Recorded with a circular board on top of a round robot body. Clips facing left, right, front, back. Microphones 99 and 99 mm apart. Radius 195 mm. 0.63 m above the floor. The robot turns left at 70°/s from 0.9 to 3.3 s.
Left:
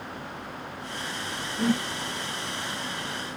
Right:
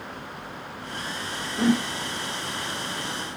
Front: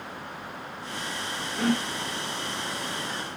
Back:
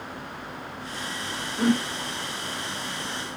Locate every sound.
1.6 s a whoosh: 100° right, 3.5 m; by 1.9 s 120° right, 3.5 m